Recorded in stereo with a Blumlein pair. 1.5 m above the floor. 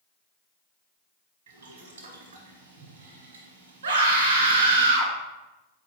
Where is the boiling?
65° right, 1.2 m.